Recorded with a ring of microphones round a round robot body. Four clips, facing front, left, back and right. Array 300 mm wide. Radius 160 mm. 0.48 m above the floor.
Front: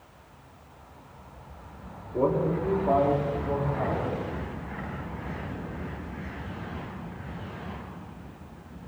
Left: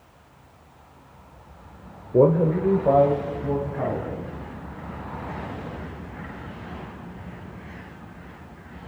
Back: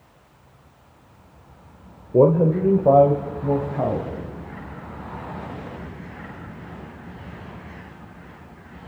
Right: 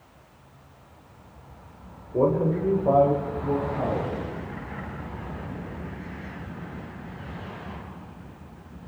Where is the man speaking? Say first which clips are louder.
Left 4 dB, back 9 dB; 150° left, 1.8 m; by 4.1 s straight behind, 3.5 m.